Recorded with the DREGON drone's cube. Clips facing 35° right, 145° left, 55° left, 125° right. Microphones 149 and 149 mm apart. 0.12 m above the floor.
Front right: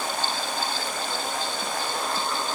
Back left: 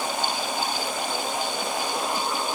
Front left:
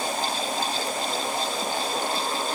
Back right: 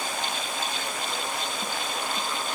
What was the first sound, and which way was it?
Only background noise.